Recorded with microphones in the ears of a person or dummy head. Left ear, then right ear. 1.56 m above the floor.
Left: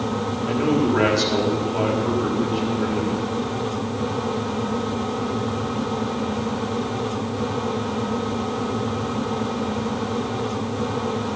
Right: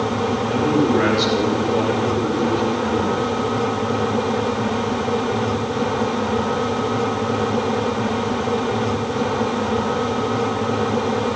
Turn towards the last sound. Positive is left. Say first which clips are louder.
# right 1 dB
turn(degrees=85)